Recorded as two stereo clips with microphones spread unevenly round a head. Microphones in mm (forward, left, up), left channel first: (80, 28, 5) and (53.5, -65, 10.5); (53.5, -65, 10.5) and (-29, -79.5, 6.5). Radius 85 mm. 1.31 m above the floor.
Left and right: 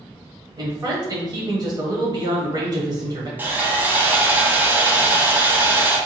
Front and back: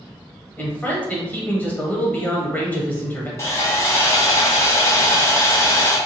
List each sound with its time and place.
0.6 s a man speaking: 65° right, 1.0 m
3.4 s sawing: 40° right, 1.0 m